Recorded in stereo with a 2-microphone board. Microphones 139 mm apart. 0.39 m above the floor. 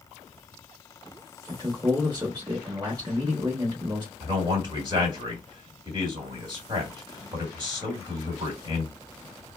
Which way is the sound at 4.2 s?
30° right (ahead or behind).